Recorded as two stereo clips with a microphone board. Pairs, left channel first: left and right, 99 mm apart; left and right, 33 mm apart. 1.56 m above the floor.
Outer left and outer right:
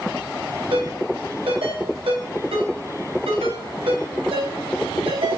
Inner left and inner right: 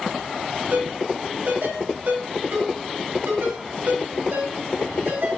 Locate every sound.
0.7 s a ringtone: 75° right (ahead or behind), 5 m